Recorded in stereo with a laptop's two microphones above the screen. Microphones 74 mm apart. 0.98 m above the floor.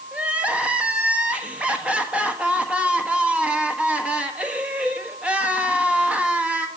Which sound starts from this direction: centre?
Crying, at 0.1 s.